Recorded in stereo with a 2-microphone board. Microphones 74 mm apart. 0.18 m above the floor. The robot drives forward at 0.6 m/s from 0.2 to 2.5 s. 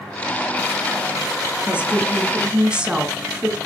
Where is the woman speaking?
15° right (ahead or behind), 2.0 m.